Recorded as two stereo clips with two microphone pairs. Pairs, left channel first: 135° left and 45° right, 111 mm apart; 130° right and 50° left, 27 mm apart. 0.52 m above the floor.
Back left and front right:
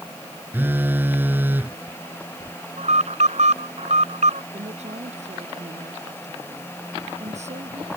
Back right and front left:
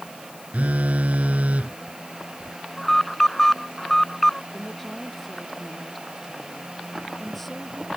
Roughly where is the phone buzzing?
Ahead left.